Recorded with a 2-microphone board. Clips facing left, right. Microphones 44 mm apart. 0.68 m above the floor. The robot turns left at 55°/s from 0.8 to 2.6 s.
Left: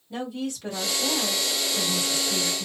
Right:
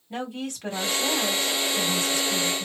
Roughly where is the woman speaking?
Behind right.